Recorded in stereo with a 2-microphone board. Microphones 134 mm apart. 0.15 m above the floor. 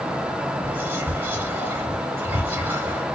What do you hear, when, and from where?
0.6 s whispering: 15° right (ahead or behind), 1.0 m